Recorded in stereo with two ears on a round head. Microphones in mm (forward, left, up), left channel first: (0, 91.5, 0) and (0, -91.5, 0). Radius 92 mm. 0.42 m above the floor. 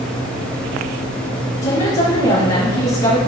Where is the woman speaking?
40° left (ahead or behind), 5 m.